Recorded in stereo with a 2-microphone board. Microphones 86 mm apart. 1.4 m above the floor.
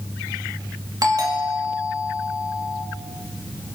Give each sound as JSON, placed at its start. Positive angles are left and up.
{"t": 1.0, "sound": "a doorbell", "side_deg": -45, "distance_m": 3.0}